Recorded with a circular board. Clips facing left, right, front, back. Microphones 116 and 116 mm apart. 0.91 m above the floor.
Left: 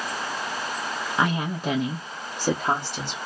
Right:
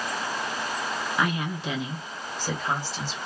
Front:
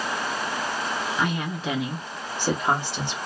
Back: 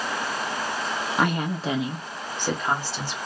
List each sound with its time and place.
1.2 s a woman speaking: 155° left, 0.7 m; by 3.2 s 60° left, 1.0 m